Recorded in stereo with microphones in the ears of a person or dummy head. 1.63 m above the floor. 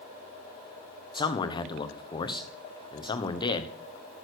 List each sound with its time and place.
1.1 s a man speaking: 30° left (ahead or behind), 1.1 m